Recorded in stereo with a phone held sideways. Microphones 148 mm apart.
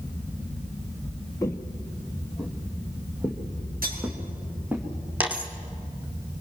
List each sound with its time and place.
1.4 s footsteps: 20° left (ahead or behind), 1.1 m; by 4.8 s 10° right (ahead or behind), 3.5 m
3.8 s cutlery clinking: 85° right, 7 m
5.2 s a dropped coin: 10° right (ahead or behind), 1.9 m